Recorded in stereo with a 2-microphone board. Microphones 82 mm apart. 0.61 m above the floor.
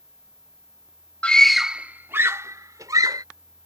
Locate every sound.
1.2 s a scream: 15° left (ahead or behind); by 3.2 s 50° right (ahead or behind)